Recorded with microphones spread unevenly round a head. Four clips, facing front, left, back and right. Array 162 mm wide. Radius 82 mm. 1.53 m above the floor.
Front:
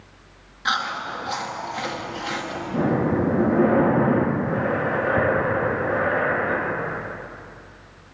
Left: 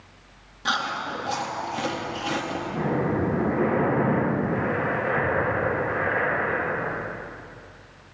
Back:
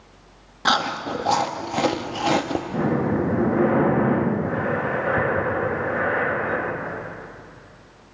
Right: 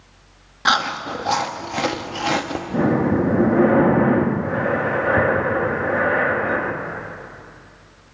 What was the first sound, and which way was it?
Chewing, 160° right.